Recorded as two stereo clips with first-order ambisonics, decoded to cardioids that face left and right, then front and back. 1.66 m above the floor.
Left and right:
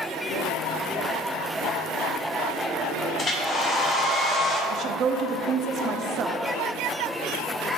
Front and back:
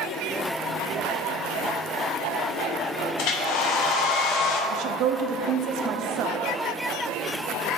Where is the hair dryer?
25° left, 0.9 m.